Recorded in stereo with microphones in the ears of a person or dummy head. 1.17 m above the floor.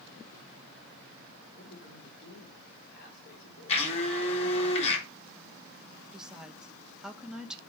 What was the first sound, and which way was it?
A man speaking, 55° left (ahead or behind).